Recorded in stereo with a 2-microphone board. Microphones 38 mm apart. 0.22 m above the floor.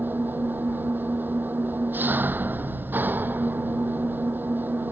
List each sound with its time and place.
0.0 s an engine running: 55° right (ahead or behind)